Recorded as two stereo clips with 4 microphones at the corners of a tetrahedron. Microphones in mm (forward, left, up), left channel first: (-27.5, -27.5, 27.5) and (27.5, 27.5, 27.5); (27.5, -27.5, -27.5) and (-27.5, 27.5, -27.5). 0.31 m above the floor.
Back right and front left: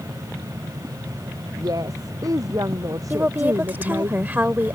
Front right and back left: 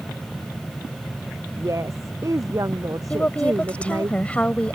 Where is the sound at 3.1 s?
5° left.